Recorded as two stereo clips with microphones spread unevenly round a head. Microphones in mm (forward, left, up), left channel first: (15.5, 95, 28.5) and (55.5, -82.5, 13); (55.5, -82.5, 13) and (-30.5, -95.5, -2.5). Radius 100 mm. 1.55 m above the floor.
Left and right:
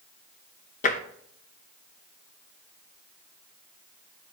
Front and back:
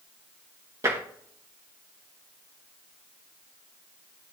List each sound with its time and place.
0.8 s tapping: 125° left, 0.9 m